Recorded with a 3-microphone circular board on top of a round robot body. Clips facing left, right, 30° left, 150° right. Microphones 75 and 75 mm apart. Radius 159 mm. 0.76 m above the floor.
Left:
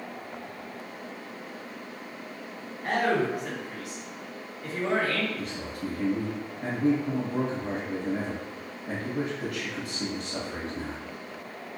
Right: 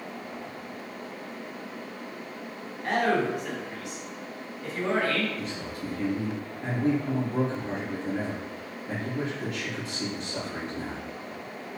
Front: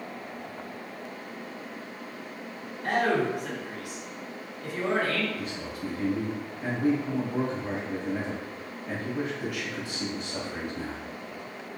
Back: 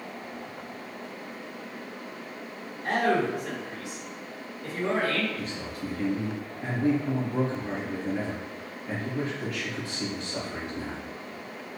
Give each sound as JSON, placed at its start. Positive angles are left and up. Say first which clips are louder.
{"t": 2.8, "sound": "a man speaking", "louder": "right 1 dB, even", "azimuth_deg": 10, "distance_m": 1.5}
{"t": 5.3, "sound": "a man speaking", "louder": "even, even", "azimuth_deg": 100, "distance_m": 1.3}